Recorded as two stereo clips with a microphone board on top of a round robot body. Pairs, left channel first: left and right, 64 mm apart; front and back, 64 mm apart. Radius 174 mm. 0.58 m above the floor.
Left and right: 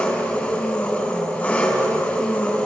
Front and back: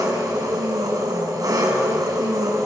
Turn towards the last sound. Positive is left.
turn(degrees=160)